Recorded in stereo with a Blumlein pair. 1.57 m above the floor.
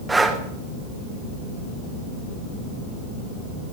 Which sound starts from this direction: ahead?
Breathing, at 0.1 s.